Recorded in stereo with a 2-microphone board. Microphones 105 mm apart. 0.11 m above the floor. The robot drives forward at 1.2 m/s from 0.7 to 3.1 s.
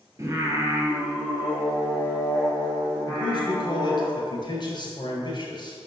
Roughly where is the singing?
Right.